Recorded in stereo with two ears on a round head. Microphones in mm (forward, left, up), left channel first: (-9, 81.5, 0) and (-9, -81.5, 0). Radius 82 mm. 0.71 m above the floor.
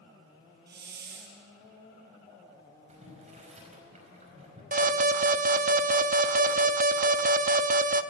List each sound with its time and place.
0.7 s a hiss: 55° right (ahead or behind), 4 m
2.9 s boiling: 35° right (ahead or behind), 5 m
4.7 s an alarm: 45° right (ahead or behind), 0.9 m